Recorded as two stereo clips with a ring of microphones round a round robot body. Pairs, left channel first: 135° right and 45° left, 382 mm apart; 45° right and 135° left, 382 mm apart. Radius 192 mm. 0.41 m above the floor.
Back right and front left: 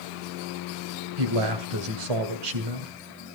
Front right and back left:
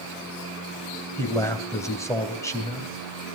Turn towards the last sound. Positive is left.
turn(degrees=35)